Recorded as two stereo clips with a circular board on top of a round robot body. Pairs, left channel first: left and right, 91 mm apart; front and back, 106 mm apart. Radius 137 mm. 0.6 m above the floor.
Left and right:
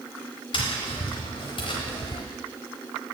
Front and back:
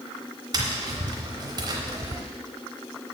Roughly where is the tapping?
Behind left.